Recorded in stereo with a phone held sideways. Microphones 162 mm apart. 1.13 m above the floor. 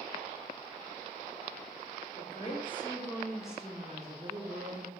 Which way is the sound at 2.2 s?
50° left (ahead or behind).